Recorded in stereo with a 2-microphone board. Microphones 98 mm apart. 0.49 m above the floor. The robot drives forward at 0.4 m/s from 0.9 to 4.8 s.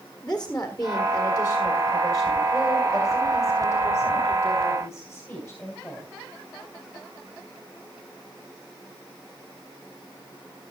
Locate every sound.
0.2 s a woman speaking: 10° left (ahead or behind), 1.4 m; by 6.1 s 5° left (ahead or behind), 3 m